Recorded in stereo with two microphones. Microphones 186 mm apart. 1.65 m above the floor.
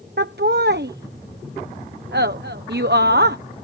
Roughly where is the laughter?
Right.